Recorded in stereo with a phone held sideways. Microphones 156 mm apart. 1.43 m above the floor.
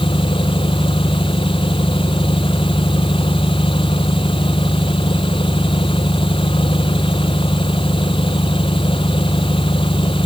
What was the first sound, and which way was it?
An engine running, 35° left (ahead or behind).